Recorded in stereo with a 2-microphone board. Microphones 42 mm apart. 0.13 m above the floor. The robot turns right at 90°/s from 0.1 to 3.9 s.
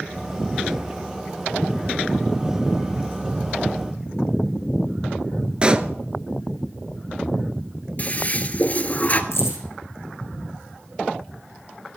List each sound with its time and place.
5.6 s a pop: 25° right (ahead or behind), 0.7 m
8.0 s a toilet flushing: 35° left (ahead or behind), 0.8 m
9.3 s keys jangling: 75° left (ahead or behind), 6 m